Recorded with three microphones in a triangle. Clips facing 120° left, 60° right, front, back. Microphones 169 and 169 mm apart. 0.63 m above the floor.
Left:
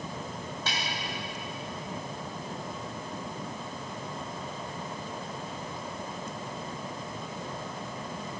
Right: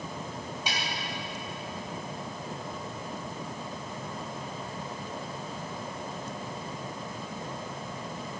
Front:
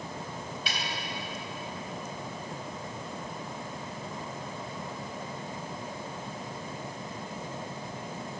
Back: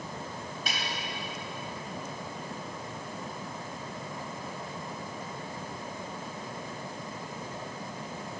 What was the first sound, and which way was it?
A snare drum, 135° right.